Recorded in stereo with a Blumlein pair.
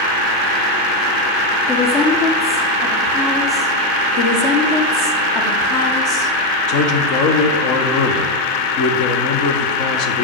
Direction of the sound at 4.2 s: 40° left.